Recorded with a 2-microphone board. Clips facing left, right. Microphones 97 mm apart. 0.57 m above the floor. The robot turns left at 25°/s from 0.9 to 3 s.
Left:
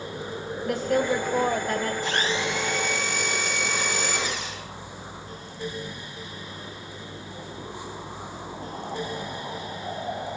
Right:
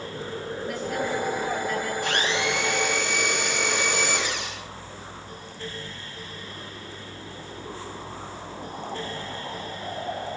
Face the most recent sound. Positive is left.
turn(degrees=-80)